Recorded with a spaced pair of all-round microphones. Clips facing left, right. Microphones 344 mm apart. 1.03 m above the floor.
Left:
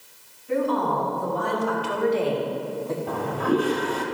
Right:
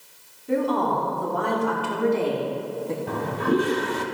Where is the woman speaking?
80° right, 3 m; by 3.0 s 35° right (ahead or behind), 1.7 m.